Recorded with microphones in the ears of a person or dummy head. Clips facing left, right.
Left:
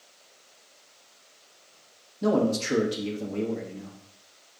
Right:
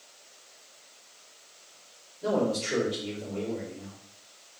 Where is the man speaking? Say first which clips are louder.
Left 3 dB; 75° left (ahead or behind), 1.4 m.